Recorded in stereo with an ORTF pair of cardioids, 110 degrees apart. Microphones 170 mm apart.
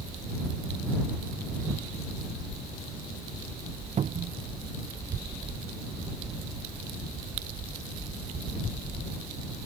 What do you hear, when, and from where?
4.0 s a cupboard door: 40° right